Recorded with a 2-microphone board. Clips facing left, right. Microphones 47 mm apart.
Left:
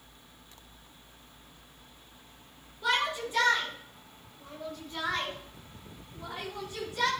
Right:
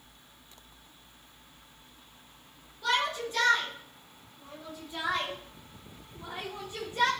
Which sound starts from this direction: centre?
A shout, at 2.8 s.